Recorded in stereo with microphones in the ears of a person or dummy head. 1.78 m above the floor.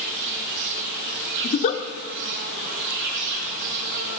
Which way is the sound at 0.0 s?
70° right (ahead or behind).